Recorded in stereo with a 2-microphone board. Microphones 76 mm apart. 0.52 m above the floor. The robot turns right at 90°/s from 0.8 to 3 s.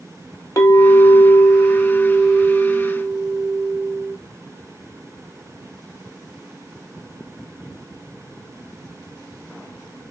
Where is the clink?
60° left, 0.8 m; by 4.2 s 100° right, 0.8 m.